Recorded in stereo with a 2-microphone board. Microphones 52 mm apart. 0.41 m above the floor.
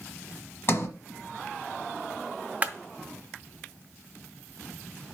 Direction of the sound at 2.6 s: 30° right (ahead or behind).